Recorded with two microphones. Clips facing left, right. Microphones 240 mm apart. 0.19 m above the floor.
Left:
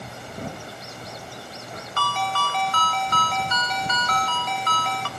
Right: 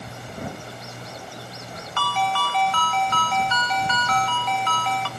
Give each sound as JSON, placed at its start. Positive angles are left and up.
{"t": 2.0, "sound": "a ringtone", "side_deg": 45, "distance_m": 0.9}